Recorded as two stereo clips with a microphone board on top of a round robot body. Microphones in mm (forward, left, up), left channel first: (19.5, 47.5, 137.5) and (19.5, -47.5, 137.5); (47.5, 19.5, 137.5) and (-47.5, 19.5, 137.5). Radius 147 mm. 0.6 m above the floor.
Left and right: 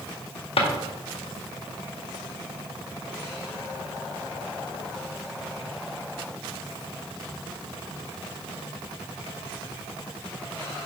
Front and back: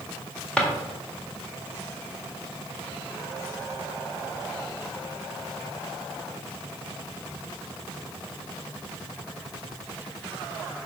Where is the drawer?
80° left, 1.7 m.